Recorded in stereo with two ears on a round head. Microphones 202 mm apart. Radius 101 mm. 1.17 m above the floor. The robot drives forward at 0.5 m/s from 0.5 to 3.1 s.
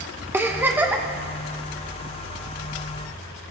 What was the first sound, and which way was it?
A giggle, 10° right (ahead or behind).